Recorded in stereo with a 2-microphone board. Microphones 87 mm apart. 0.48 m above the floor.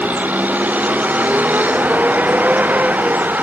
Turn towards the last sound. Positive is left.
turn(degrees=-20)  # may be behind; listen again after turning